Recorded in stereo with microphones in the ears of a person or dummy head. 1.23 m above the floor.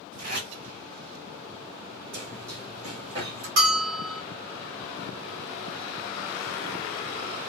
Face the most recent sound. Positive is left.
turn(degrees=-45)  # may be behind; listen again after turning